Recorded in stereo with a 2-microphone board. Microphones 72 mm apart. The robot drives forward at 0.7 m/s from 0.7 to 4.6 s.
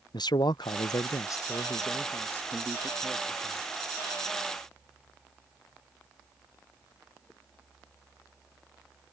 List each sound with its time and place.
0.1 s a man speaking: 65° left (ahead or behind); by 3.7 s 15° left (ahead or behind)